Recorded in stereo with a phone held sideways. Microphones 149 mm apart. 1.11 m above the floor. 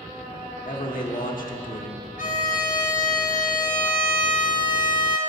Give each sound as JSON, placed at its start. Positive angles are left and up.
{"t": 0.7, "sound": "a man speaking", "side_deg": 65, "distance_m": 1.4}
{"t": 2.2, "sound": "a violin", "side_deg": 60, "distance_m": 1.1}